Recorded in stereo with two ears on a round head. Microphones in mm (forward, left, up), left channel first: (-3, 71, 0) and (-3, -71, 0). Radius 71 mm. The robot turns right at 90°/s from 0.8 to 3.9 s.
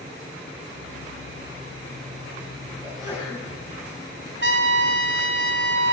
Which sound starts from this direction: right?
A trumpet, at 4.4 s.